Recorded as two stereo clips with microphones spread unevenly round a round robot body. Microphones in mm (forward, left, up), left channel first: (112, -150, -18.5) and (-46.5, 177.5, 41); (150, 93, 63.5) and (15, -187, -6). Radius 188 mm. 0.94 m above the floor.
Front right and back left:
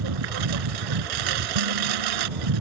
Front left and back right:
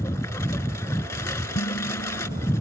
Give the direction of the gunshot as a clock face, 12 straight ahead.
I don't hear a gunshot.